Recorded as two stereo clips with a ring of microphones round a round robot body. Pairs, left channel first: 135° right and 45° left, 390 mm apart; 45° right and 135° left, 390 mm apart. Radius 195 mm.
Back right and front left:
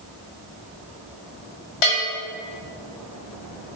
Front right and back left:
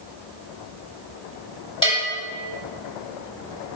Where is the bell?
120° right, 1.5 m.